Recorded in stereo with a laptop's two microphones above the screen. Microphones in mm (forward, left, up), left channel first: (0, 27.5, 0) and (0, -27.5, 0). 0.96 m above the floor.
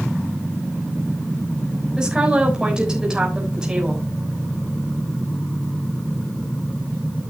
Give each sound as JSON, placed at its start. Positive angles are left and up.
{"t": 2.0, "sound": "a woman speaking", "side_deg": -15, "distance_m": 3.5}